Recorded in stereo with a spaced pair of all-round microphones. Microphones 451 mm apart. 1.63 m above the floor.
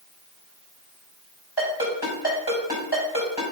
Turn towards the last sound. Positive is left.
turn(degrees=60)  # may be behind; listen again after turning